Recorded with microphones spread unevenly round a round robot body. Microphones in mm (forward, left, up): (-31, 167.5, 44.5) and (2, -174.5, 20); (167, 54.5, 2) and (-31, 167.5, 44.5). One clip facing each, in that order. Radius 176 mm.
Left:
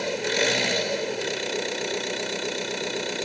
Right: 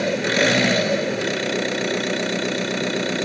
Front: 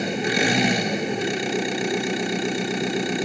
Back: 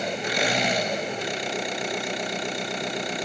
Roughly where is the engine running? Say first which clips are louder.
Right 5 dB, front 5 dB; ahead right.